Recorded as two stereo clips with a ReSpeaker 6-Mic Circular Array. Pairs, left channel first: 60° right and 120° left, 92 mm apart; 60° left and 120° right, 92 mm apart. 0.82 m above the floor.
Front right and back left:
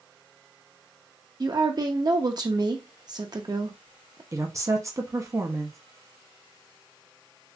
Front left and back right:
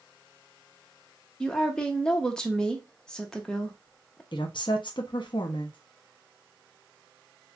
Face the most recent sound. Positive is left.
turn(degrees=70)